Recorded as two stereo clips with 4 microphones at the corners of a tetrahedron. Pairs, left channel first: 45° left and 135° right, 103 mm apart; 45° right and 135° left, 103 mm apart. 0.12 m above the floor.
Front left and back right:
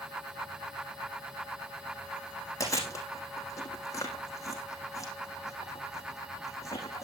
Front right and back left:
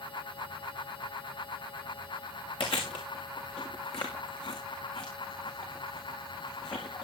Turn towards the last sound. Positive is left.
turn(degrees=-15)